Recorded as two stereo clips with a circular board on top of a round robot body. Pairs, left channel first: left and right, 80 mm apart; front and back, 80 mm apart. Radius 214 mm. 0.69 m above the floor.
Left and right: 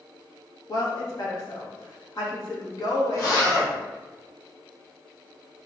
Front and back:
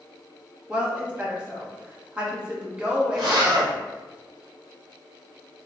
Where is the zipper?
145° left, 0.7 m.